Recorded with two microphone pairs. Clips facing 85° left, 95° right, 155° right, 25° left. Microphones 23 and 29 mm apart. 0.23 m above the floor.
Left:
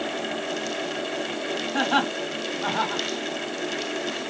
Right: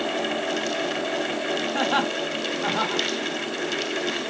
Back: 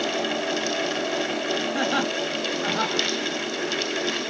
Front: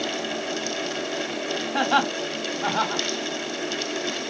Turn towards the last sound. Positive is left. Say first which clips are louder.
# left 2 dB, front 6 dB
turn(degrees=15)